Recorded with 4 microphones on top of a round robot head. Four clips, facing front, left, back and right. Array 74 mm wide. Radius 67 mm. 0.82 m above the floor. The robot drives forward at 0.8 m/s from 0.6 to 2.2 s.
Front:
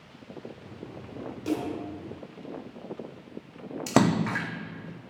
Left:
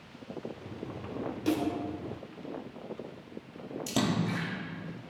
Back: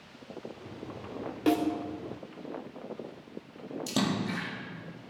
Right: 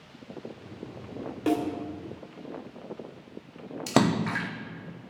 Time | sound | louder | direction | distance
1.5 | a snare drum | right 4 dB, back 4 dB | 140° right | 1.6 m
3.9 | a splash | right 6 dB, front 8 dB | 40° right | 0.6 m